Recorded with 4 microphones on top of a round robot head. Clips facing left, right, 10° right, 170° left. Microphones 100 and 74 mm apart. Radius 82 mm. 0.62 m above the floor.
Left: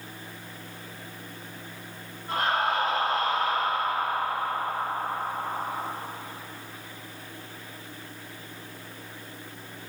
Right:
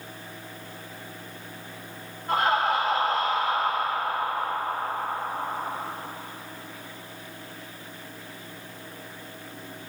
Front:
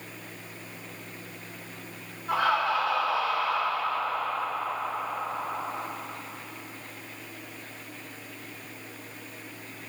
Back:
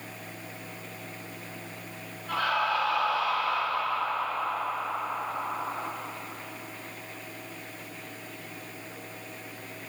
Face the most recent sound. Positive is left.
turn(degrees=-80)